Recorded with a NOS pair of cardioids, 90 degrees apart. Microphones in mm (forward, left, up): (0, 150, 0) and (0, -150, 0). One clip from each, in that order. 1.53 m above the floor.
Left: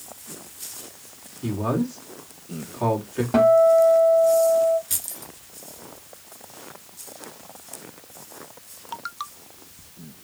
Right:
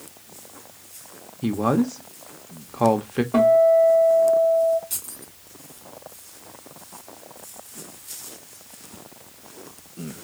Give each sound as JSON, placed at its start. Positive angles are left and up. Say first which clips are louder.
{"t": 1.4, "sound": "a man speaking", "louder": "right 4 dB", "azimuth_deg": -45, "distance_m": 1.1}
{"t": 3.3, "sound": "a guitar", "louder": "even", "azimuth_deg": 15, "distance_m": 1.8}
{"t": 4.9, "sound": "keys jangling", "louder": "left 3 dB", "azimuth_deg": 30, "distance_m": 1.7}